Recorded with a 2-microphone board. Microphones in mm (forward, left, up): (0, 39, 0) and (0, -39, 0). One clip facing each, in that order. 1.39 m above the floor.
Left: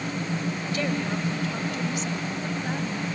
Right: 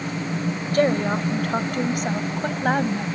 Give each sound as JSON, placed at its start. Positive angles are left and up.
{"t": 0.7, "sound": "a woman speaking", "side_deg": -50}